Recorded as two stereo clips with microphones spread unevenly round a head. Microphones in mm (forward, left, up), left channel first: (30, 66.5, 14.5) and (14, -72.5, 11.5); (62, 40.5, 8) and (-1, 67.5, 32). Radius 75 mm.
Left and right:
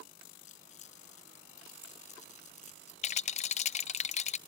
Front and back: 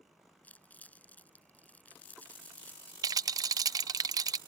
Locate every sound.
0.4 s crumpling: 45° left
3.0 s a rattle: 135° left